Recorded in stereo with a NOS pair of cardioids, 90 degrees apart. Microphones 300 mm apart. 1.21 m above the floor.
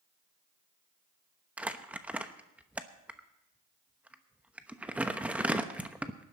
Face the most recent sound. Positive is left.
turn(degrees=-5)